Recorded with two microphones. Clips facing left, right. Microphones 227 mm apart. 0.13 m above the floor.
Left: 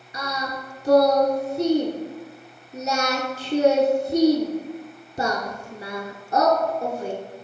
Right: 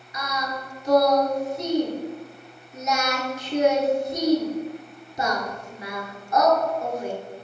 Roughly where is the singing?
Left.